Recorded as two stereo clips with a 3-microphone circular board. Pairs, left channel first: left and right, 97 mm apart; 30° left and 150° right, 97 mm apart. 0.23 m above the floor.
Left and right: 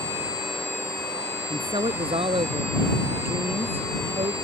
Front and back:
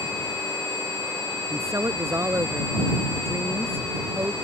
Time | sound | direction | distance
1.5 | a woman speaking | 95° right | ?